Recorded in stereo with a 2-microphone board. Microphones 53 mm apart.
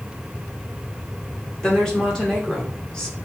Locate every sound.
1.6 s a woman speaking: 15° left (ahead or behind), 1.6 m